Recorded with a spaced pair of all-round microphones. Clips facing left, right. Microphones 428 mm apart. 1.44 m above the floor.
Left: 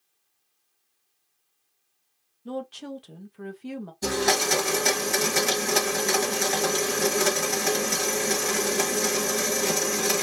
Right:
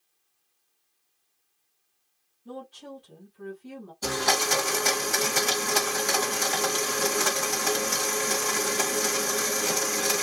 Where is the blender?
35° left (ahead or behind), 1.6 m.